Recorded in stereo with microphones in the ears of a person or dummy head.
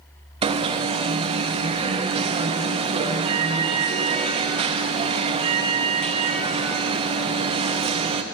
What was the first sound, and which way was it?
An alarm, 25° right (ahead or behind).